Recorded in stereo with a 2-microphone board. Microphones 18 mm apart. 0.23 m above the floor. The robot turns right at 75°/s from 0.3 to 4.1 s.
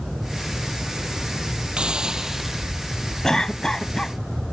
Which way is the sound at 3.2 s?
55° left.